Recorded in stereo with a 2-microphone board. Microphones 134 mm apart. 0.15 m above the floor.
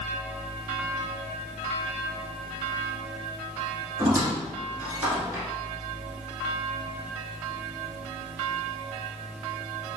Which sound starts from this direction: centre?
A squeak, at 4.0 s.